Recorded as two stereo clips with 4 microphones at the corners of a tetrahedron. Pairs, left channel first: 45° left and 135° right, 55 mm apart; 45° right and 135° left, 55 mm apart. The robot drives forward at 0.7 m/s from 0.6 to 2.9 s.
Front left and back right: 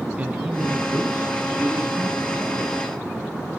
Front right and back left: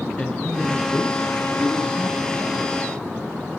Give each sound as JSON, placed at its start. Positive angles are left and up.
{"t": 0.2, "sound": "a man speaking", "azimuth_deg": -105, "distance_m": 1.5}